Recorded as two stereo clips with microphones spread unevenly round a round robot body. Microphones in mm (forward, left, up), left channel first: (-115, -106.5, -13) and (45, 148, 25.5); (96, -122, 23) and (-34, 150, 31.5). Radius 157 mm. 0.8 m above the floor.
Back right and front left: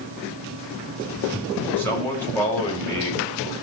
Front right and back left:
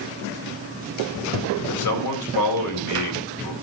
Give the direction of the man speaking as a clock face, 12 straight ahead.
1 o'clock.